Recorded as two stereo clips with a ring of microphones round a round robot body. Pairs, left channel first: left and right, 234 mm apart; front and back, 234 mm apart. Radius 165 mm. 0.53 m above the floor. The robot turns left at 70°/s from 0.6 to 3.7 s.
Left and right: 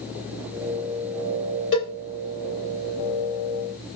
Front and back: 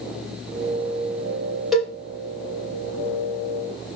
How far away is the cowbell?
About 2 m.